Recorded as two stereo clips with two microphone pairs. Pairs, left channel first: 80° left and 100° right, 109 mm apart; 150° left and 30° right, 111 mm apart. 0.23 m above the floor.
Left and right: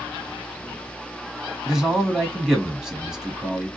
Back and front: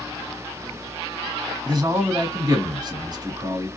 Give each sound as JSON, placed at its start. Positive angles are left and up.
{"t": 1.6, "sound": "a man speaking", "azimuth_deg": -20, "distance_m": 1.4}